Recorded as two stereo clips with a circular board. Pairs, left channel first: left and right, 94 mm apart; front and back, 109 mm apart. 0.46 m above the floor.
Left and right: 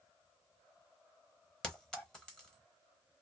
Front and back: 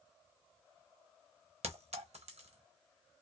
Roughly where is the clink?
Behind.